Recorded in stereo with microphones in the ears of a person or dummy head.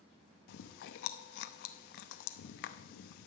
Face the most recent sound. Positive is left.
turn(degrees=65)  # may be behind; listen again after turning